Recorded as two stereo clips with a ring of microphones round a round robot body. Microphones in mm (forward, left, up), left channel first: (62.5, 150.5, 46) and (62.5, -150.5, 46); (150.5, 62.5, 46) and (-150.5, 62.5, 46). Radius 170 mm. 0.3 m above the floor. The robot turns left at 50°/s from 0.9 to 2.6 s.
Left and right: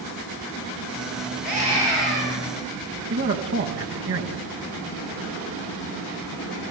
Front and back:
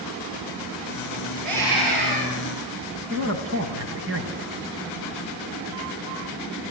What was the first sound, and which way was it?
A scream, 150° right.